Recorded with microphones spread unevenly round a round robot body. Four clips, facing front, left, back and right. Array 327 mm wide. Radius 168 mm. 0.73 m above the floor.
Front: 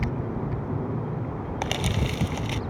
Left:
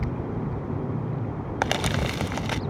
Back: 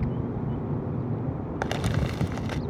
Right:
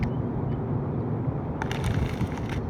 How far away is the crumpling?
About 0.8 m.